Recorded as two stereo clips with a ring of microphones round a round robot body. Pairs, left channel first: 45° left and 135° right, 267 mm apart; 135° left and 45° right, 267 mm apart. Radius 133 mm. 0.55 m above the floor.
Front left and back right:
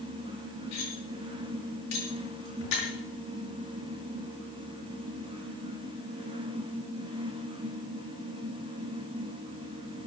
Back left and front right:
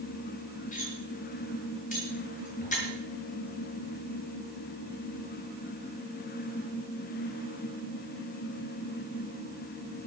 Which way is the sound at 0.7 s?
70° left.